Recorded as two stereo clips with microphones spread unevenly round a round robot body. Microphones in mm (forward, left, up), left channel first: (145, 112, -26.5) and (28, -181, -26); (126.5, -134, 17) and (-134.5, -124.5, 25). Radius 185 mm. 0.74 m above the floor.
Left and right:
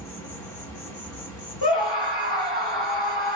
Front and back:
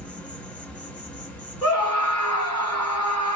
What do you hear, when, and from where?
0.0 s an insect: 80° left, 1.7 m
1.6 s a scream: 110° left, 2.5 m